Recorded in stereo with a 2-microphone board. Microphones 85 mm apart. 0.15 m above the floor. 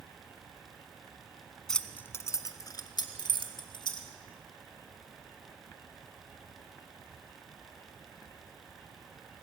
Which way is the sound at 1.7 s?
5° left (ahead or behind).